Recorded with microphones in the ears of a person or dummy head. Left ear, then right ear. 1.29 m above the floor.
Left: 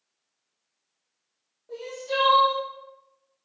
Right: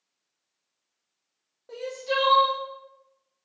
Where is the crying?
55° right (ahead or behind), 1.1 m.